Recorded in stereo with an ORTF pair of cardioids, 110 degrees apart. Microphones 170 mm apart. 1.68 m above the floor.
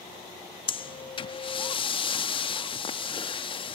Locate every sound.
0.7 s breathing: 30° left, 0.5 m